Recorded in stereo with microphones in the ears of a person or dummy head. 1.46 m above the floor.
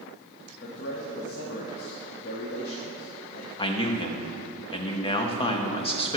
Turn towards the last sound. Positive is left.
turn(degrees=30)  # may be behind; listen again after turning